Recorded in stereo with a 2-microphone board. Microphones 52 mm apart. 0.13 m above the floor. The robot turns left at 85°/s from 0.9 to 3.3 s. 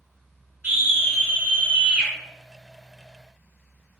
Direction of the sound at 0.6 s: 15° right (ahead or behind).